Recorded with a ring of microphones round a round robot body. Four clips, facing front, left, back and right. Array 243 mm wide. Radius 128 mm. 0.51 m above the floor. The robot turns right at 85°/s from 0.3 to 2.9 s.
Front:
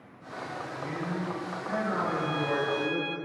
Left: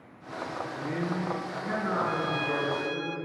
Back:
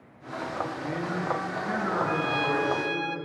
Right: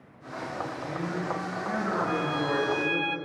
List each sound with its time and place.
0.8 s a man speaking: 65° left, 8.5 m; by 3.1 s 115° right, 8.5 m
2.1 s a violin: 155° left, 0.7 m; by 3.2 s 135° right, 0.7 m